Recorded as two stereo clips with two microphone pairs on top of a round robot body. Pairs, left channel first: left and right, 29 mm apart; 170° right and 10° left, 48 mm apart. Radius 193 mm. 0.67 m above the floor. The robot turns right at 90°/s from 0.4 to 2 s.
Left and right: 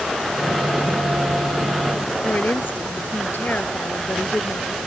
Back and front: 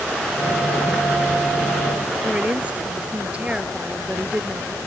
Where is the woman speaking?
80° left.